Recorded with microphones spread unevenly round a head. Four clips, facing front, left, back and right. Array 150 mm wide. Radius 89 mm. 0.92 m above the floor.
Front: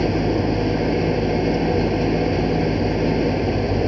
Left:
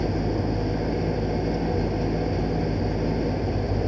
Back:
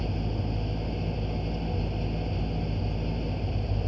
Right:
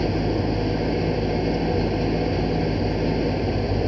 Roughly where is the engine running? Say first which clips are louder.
Right 3 dB, front 14 dB; ahead.